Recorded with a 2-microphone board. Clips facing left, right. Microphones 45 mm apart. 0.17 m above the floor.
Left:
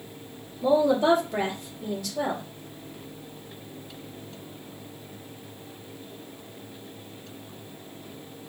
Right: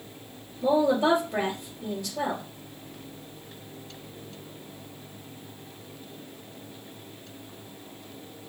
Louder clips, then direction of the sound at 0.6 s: Left 1 dB; centre (ahead or behind).